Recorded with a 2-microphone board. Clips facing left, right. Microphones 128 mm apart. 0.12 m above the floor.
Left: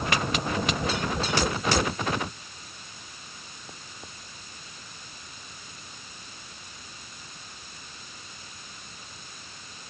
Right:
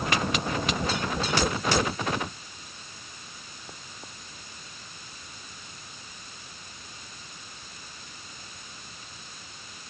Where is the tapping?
I don't hear tapping.